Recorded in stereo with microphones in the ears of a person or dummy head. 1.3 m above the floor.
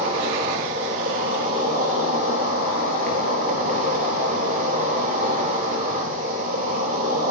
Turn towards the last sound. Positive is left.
turn(degrees=-45)  # may be behind; listen again after turning